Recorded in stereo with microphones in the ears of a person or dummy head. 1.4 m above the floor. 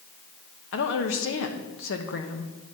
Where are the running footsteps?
I don't hear running footsteps.